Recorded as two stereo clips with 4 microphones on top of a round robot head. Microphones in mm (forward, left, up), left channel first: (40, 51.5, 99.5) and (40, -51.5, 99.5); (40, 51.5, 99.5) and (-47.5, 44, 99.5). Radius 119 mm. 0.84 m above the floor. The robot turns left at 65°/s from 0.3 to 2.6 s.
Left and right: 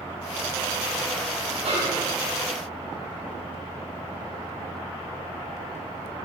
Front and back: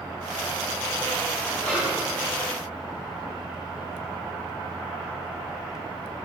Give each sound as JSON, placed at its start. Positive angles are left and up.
{"t": 1.6, "sound": "a snare drum", "azimuth_deg": -70, "distance_m": 5.5}